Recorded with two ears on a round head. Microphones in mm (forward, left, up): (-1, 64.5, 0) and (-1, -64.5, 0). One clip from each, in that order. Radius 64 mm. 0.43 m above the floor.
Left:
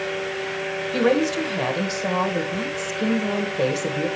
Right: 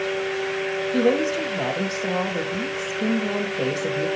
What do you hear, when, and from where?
0.9 s a woman speaking: 55° left (ahead or behind), 1.7 m